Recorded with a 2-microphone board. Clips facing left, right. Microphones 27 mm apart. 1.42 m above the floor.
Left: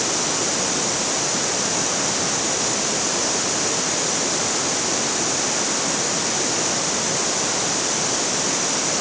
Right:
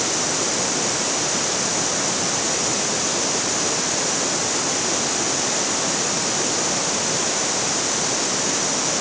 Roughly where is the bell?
I don't hear a bell.